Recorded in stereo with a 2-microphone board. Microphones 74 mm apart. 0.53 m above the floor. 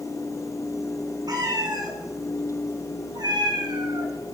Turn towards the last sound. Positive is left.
turn(degrees=-80)